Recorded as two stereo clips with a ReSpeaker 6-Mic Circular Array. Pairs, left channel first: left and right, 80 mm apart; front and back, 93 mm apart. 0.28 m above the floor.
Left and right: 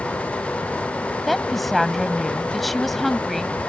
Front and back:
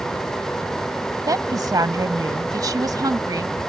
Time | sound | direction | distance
1.3 | a woman speaking | 175° left | ?